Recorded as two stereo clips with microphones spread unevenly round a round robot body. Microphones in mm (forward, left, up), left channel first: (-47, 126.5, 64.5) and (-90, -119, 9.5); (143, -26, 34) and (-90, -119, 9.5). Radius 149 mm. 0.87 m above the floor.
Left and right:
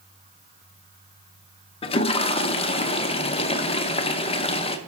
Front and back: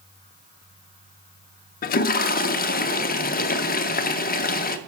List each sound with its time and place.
1.8 s a toilet flushing: 10° left, 0.6 m